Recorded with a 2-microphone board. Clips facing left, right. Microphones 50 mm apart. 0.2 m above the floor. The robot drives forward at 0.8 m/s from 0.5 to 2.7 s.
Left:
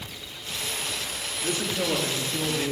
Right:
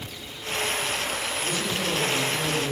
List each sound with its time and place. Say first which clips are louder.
1.4 s a man speaking: left 3 dB; 35° left (ahead or behind), 3 m; by 2.7 s 30° left (ahead or behind), 4 m